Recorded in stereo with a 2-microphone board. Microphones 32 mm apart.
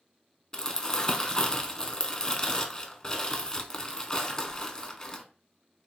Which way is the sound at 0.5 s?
20° left (ahead or behind).